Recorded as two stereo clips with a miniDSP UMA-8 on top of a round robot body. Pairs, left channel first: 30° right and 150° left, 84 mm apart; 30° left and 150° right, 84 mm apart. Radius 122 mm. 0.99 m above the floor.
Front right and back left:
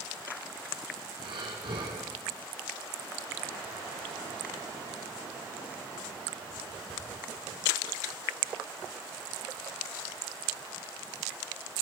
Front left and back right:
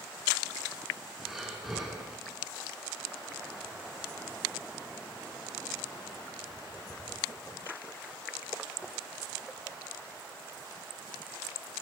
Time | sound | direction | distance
1.2 | breathing | 125° left | 2 m